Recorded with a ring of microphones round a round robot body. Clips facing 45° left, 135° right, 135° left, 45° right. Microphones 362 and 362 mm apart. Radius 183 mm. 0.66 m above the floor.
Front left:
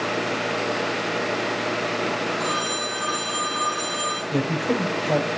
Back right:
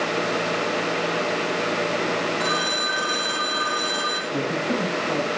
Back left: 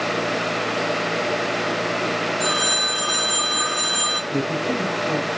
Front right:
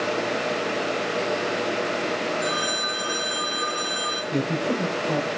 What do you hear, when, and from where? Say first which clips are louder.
2.4 s a phone ringing: back right 1 dB, back left 2 dB; 140° left, 3.5 m
4.3 s a man speaking: front left 2 dB, back left 1 dB; 55° left, 3.5 m